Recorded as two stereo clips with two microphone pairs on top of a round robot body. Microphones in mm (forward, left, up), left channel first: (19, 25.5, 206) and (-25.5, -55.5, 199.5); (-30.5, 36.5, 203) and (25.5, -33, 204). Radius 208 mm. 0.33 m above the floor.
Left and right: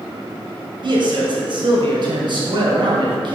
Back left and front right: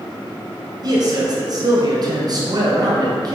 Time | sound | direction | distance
0.8 | a man speaking | 90° right | 2.5 m